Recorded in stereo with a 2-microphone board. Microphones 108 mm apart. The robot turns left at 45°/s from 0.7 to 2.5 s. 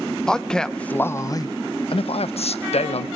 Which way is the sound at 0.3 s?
175° left.